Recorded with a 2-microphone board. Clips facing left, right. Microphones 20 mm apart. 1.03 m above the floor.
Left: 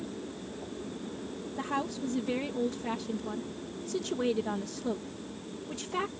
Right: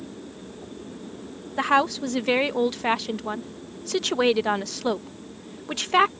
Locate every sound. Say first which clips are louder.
1.6 s a woman speaking: right 13 dB; 65° right (ahead or behind)